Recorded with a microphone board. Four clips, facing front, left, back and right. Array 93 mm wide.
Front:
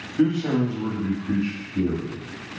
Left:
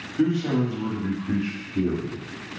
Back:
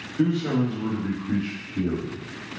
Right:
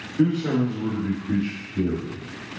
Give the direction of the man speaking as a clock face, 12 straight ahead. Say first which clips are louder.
Right 1 dB, front 2 dB; 11 o'clock.